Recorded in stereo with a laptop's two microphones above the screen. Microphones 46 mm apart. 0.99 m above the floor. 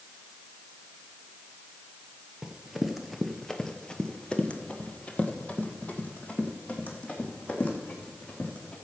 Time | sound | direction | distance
2.4 | running footsteps | 10° right (ahead or behind) | 1.0 m